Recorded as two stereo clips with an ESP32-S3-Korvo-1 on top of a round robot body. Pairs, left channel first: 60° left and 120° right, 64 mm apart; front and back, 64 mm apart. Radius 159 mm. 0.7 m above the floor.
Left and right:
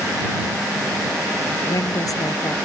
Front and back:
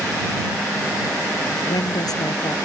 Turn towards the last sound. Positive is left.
turn(degrees=25)